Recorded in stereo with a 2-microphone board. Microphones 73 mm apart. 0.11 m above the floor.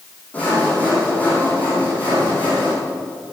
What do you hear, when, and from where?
0.3 s sawing: 20° left (ahead or behind), 7.5 m